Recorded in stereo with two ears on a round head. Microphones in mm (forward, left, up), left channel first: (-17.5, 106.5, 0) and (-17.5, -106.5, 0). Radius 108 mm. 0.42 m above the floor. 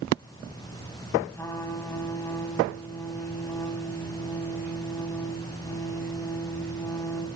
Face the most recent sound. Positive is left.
turn(degrees=10)  # may be behind; listen again after turning